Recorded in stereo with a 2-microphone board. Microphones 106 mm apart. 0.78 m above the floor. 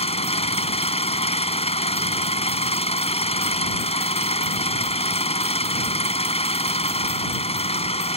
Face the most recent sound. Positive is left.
turn(degrees=75)  # may be behind; listen again after turning